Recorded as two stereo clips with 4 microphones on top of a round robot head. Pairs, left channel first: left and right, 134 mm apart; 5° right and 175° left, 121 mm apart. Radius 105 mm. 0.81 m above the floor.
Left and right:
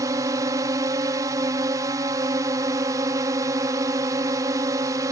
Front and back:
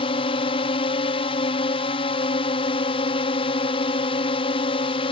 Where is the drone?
30° right.